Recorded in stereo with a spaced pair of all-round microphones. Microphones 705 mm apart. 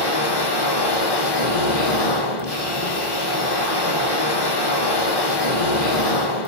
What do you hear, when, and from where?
0.0 s a machine running: 35° left (ahead or behind), 1.4 m